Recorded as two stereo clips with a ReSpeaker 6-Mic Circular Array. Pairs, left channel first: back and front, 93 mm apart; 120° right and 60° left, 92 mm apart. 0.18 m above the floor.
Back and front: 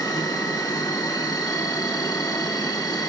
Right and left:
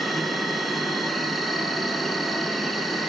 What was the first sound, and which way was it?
An insect, 150° left.